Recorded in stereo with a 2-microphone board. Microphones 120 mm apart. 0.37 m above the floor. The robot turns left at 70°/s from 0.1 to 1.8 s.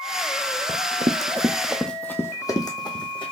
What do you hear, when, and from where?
0.7 s running footsteps: 45° right (ahead or behind), 0.8 m; by 3.3 s 45° left (ahead or behind), 1.3 m